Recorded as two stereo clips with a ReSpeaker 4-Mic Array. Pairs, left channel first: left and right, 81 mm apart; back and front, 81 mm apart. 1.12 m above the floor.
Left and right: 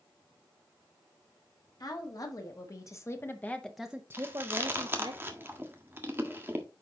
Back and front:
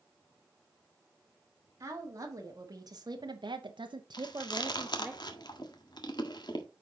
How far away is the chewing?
About 1.4 m.